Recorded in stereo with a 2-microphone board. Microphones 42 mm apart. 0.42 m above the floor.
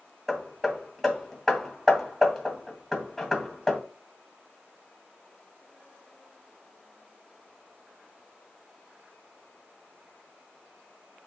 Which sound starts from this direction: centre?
Hammering, at 0.3 s.